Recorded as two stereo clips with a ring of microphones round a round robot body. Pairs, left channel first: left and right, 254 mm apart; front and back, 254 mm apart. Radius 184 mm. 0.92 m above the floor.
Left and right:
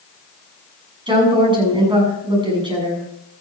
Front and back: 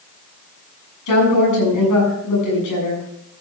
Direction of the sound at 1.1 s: 20° right.